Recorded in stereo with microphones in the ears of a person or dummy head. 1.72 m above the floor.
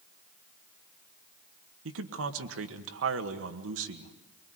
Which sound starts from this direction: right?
A man speaking, at 1.9 s.